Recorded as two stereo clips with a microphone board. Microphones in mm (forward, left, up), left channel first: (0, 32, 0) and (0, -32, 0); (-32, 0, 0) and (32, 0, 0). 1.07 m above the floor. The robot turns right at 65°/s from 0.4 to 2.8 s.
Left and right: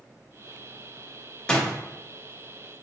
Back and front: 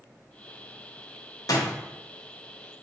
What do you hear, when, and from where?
1.5 s a door slam: 165° left, 0.8 m; by 1.8 s straight behind, 0.8 m